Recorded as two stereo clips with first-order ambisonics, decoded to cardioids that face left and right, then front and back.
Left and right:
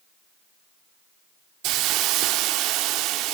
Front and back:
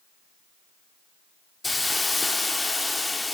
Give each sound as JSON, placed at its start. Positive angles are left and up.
{"t": 1.6, "sound": "a hiss", "azimuth_deg": -80, "distance_m": 0.6}